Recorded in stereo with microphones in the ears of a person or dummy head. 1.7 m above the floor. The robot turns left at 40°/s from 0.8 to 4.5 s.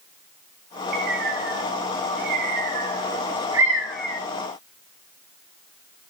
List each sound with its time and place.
0.9 s a bird: 55° right (ahead or behind), 2.5 m; by 4.2 s 10° left (ahead or behind), 2.5 m